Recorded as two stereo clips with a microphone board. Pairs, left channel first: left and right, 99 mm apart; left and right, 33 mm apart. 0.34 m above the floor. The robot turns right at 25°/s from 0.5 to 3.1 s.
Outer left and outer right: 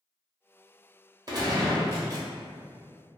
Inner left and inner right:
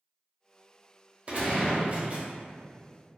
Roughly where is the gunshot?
Right.